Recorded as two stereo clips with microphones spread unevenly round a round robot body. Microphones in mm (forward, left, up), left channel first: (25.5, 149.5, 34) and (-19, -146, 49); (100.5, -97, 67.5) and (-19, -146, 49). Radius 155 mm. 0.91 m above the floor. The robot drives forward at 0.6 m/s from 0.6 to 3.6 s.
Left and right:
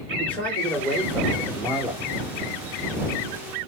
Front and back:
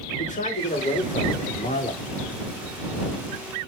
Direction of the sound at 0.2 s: 5° right.